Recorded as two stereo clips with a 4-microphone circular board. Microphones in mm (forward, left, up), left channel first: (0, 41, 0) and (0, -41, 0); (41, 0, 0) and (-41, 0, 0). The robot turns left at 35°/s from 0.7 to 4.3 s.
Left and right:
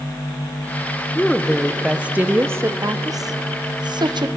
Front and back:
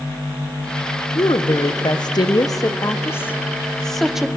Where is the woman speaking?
15° left, 0.8 m; by 4.3 s 95° right, 0.8 m.